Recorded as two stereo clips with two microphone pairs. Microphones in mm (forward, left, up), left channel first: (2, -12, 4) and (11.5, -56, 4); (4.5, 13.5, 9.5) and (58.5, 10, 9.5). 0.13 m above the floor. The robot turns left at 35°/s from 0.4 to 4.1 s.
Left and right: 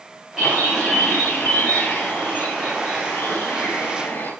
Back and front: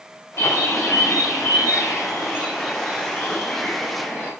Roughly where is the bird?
Behind right.